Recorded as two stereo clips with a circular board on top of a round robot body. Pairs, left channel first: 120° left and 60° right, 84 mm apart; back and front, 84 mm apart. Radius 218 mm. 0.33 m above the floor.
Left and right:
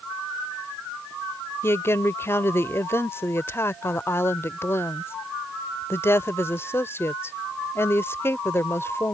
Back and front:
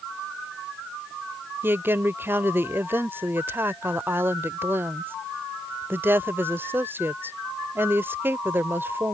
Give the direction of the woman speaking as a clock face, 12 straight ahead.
10 o'clock.